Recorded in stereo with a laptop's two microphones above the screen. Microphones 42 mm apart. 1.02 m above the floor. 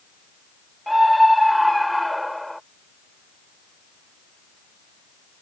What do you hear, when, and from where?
0.9 s a scream: centre (ahead or behind)